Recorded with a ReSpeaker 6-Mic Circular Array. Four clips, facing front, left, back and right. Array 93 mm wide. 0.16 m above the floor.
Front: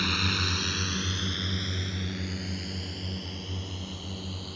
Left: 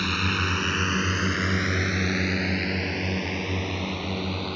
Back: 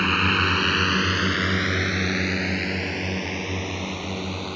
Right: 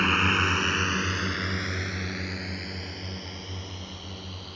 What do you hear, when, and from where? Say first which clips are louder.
0.0 s a drone: right 3 dB, back 9 dB; 145° right; by 4.6 s 135° left